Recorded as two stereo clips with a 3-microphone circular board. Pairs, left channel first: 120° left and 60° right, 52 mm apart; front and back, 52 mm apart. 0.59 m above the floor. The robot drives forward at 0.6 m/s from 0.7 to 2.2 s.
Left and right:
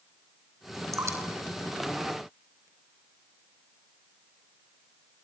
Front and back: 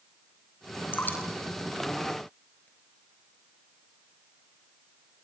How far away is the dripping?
About 3.5 m.